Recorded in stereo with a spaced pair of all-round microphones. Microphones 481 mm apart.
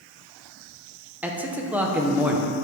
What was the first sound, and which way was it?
A man speaking, 5° right (ahead or behind).